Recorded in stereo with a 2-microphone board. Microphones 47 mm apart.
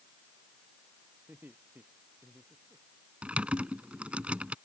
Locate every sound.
1.3 s laughter: 45° right (ahead or behind); by 2.9 s 40° right (ahead or behind)
3.2 s typing on a keyboard: 30° right (ahead or behind)